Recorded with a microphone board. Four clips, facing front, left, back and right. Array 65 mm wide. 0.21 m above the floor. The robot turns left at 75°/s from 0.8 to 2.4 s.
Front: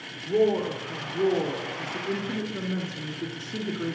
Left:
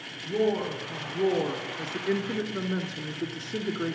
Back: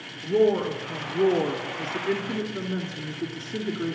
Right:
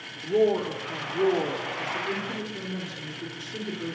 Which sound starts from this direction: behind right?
A woman speaking, at 0.2 s.